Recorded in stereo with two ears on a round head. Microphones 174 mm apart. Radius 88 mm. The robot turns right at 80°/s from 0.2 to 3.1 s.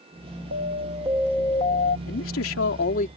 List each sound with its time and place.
0.5 s an alarm: 65° right; by 2.0 s 55° left
2.1 s a man speaking: 55° left; by 3.1 s 135° left